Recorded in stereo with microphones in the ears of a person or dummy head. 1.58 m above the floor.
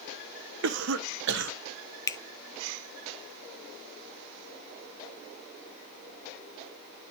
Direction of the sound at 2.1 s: 25° left (ahead or behind).